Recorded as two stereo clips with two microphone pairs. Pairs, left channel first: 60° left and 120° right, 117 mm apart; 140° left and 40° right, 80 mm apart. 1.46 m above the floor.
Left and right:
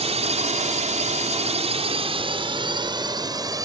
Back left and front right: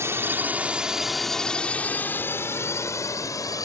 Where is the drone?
95° right; by 3.7 s straight behind.